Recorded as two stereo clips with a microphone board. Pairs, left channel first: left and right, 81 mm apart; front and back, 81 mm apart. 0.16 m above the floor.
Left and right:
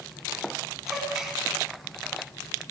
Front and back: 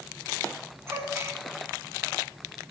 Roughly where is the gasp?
Behind.